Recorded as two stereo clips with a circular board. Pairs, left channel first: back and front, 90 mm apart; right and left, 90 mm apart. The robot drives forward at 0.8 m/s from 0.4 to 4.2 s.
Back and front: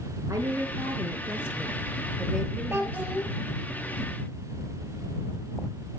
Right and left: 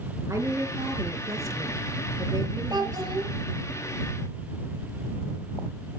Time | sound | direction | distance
0.3 | a woman speaking | 45° left | 2.5 m
2.7 | a child speaking | 65° left | 1.5 m